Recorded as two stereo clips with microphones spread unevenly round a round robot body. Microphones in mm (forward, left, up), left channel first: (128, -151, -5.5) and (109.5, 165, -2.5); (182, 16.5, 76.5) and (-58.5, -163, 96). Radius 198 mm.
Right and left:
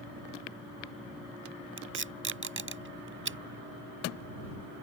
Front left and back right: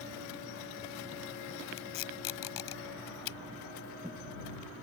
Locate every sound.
1.8 s tape being pulled: 40° left